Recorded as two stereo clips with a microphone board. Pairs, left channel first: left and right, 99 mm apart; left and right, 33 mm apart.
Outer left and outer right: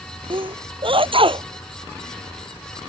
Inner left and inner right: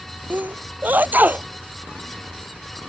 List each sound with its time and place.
0.3 s a sneeze: 60° right (ahead or behind)